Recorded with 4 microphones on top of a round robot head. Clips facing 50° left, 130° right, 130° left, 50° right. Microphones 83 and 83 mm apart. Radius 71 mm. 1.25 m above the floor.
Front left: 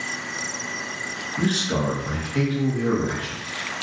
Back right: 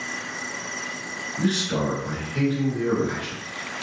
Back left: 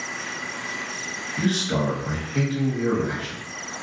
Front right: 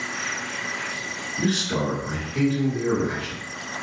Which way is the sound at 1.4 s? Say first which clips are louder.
Even, back left 1 dB; 90° left.